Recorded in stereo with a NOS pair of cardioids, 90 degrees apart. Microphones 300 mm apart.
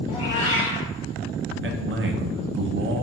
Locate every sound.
0.1 s a cat meowing: 70° left, 1.2 m
1.6 s a man speaking: 40° right, 0.6 m